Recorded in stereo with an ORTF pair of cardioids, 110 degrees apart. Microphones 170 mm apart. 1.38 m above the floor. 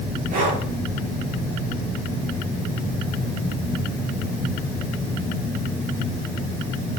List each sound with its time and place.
0.3 s breathing: 55° right, 7.5 m